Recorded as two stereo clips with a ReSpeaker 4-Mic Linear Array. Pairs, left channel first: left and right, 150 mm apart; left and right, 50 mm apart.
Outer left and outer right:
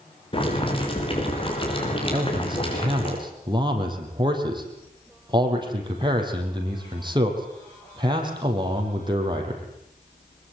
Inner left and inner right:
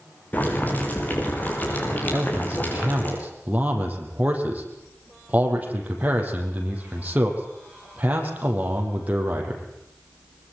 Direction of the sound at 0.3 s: 35° left (ahead or behind).